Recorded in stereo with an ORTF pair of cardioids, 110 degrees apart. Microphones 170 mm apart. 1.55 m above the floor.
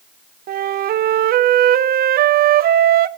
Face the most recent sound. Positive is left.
turn(degrees=-55)